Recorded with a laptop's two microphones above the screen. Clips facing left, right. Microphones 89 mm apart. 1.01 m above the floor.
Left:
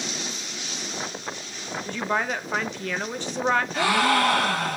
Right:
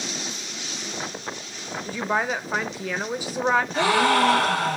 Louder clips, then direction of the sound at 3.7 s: Right 2 dB; 25° right (ahead or behind).